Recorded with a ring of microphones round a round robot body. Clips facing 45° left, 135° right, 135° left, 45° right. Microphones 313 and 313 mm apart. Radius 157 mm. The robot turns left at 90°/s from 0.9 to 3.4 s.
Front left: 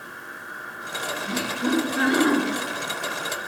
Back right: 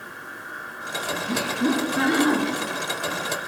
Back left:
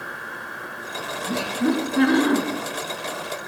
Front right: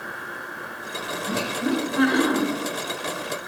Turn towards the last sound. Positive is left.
turn(degrees=10)